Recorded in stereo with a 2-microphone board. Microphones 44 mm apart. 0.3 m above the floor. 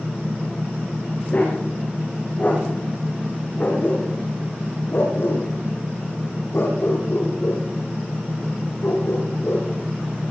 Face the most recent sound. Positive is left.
turn(degrees=85)